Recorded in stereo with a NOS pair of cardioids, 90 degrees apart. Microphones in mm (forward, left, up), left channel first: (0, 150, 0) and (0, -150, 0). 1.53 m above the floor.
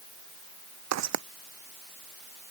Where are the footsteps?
65° right.